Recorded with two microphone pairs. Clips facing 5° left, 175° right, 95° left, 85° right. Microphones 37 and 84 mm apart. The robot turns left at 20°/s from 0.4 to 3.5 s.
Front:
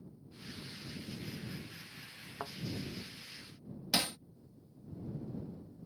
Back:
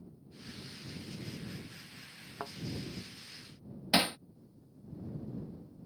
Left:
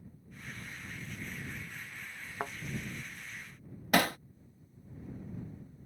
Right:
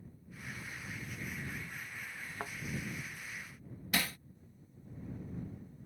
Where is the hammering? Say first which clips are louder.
Back 5 dB, left 9 dB; 125° left.